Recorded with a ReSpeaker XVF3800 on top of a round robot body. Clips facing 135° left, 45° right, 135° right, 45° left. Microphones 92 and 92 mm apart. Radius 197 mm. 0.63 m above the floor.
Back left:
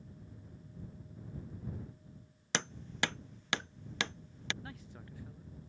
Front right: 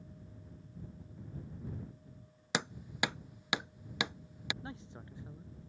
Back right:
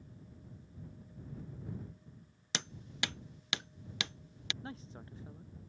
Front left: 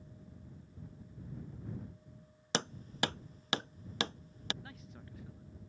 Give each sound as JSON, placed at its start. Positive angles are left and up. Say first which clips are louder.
{"t": 2.5, "sound": "hammering", "louder": "front right 1 dB, front left 6 dB", "azimuth_deg": 30}
{"t": 4.6, "sound": "a man speaking", "louder": "front right 3 dB, back right 5 dB", "azimuth_deg": -100}